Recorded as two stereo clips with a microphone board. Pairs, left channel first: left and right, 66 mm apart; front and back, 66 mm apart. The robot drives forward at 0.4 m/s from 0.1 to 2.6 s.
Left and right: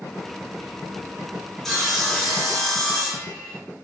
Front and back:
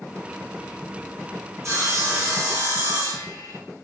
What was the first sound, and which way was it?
Sawing, 175° left.